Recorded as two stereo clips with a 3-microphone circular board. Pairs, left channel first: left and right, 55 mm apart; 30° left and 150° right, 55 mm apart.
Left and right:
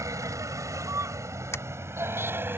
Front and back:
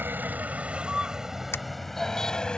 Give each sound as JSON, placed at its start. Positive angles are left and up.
{"t": 0.0, "sound": "a vehicle", "azimuth_deg": -100}
{"t": 1.5, "sound": "a camera shutter", "azimuth_deg": 65}